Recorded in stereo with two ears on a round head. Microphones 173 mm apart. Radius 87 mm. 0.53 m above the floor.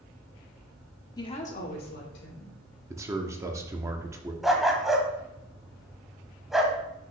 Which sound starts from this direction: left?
A woman speaking, at 1.2 s.